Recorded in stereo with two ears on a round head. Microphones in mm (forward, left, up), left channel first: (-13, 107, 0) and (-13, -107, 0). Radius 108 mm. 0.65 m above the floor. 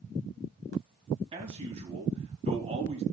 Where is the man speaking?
25° right (ahead or behind), 4.5 m.